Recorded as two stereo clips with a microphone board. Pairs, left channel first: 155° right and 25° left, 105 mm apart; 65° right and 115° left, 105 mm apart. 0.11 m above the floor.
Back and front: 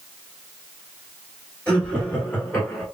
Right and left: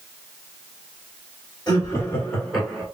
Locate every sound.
1.7 s laughter: 80° right, 2 m; by 2.9 s straight behind, 1.7 m